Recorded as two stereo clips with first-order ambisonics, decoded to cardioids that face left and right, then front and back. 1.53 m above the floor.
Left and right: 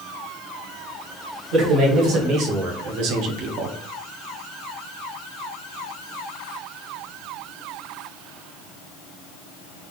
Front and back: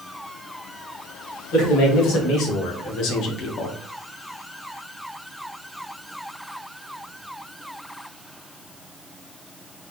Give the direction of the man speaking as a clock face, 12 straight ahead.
1 o'clock.